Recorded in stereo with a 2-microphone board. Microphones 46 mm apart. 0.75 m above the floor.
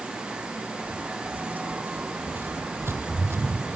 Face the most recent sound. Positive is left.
turn(degrees=-60)  # may be behind; listen again after turning